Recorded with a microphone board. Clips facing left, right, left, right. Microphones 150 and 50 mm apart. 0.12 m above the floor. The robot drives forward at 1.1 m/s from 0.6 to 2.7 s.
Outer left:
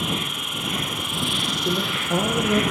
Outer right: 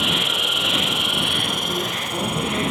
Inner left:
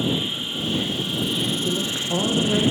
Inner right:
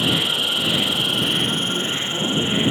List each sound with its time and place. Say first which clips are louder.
0.0 s an insect: outer right 3 dB, inner right 4 dB; 70° right (ahead or behind), 1.1 m; by 2.7 s 25° right (ahead or behind), 2.5 m
1.6 s a woman speaking: outer left 2 dB, inner right 1 dB; 75° left (ahead or behind), 5.5 m; by 2.6 s 70° left (ahead or behind), 5.5 m